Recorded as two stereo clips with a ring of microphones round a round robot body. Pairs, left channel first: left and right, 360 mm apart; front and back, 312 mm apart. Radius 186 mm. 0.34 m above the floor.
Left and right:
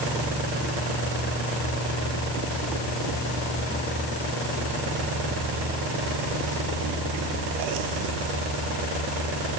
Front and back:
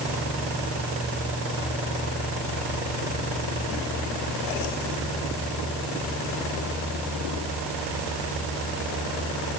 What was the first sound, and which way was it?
Only background noise.